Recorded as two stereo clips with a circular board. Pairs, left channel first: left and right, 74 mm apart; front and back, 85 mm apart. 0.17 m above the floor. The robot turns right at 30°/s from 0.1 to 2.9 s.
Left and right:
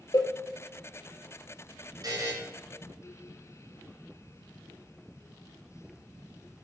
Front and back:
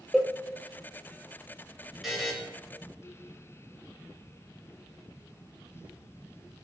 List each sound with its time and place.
0.1 s a cowbell: 90° left, 0.8 m; by 0.3 s 95° left, 0.8 m
2.0 s a buzzer: 95° right, 2 m; by 2.3 s 85° right, 2 m